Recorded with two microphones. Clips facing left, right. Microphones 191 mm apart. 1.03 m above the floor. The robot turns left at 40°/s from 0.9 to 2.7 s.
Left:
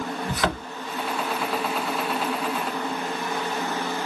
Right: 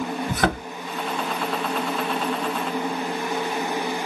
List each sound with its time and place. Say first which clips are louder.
0.3 s a thud: right 3 dB; 55° right (ahead or behind), 1.7 m